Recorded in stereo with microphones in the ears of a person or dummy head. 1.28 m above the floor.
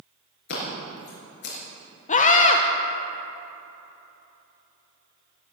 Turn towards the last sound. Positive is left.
turn(degrees=35)  # may be behind; listen again after turning